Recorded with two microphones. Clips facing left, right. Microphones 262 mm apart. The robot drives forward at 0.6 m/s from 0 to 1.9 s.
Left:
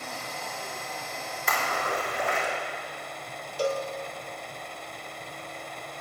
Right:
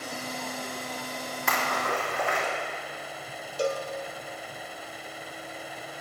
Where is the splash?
70° right (ahead or behind), 3.5 m; by 2.5 s 75° right (ahead or behind), 3.5 m.